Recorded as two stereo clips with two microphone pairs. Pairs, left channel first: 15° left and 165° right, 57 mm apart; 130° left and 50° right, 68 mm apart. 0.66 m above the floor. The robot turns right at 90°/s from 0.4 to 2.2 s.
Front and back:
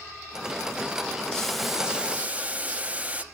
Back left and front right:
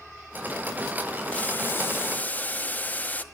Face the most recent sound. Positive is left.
turn(degrees=165)